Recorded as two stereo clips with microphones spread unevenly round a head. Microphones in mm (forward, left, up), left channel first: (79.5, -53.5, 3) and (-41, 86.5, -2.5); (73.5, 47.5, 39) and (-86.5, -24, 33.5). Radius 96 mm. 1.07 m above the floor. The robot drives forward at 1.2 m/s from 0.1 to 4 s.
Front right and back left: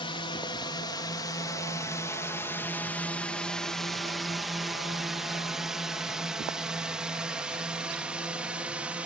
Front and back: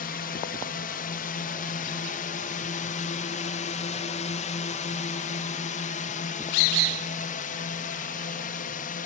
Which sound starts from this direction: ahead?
A drone, at 0.0 s.